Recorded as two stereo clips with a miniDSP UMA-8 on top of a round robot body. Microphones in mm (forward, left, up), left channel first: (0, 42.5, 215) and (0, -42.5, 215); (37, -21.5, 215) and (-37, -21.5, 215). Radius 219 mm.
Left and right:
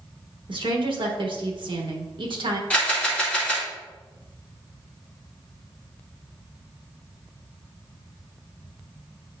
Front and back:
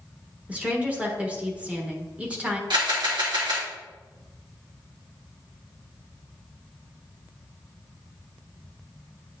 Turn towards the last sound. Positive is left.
turn(degrees=165)